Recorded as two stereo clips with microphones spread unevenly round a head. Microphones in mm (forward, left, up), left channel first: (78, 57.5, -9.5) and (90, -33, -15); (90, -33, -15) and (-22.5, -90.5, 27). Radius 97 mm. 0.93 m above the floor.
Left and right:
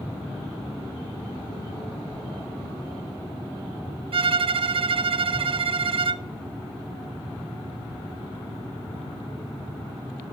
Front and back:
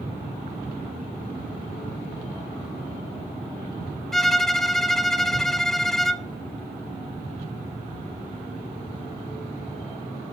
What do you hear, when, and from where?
4.1 s a violin: 60° right, 0.6 m